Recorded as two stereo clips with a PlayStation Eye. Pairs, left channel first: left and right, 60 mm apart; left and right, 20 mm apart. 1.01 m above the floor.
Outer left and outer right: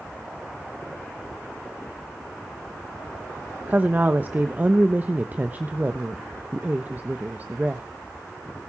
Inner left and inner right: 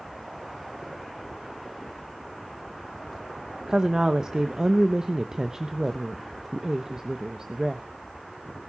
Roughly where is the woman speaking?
Right.